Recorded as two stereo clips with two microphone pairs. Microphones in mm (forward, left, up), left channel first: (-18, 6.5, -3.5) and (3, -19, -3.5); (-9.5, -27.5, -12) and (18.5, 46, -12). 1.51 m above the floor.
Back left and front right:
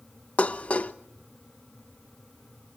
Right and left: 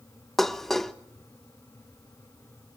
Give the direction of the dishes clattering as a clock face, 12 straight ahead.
7 o'clock.